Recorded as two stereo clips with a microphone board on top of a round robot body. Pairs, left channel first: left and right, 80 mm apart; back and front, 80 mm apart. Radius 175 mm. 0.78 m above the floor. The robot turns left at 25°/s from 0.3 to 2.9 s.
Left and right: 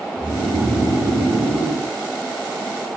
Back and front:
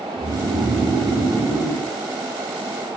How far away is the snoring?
About 3 m.